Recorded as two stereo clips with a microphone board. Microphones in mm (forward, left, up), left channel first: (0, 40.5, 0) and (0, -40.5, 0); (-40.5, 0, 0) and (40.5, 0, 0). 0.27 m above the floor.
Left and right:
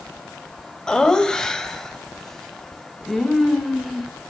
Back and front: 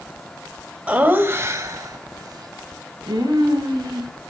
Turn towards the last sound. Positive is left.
turn(degrees=0)